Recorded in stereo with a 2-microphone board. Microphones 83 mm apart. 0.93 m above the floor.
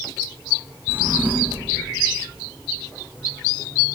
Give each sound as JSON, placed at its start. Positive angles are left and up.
{"t": 0.9, "sound": "a drawer", "side_deg": -25, "distance_m": 3.5}